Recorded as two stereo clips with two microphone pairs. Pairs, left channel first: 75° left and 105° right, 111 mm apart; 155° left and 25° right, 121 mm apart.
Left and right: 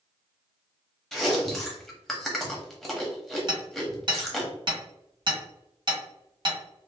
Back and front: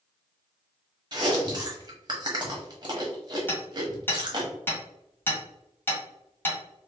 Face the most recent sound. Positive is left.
turn(degrees=-135)